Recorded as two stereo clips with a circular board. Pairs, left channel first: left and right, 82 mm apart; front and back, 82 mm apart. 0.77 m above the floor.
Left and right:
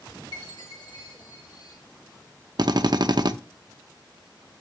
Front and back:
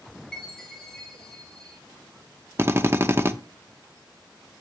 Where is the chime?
80° left, 1.8 m.